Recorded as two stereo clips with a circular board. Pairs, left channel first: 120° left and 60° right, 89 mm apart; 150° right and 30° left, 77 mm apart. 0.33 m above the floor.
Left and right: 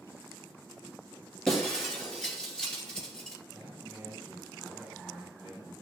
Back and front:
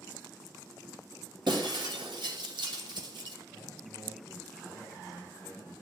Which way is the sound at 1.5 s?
40° left.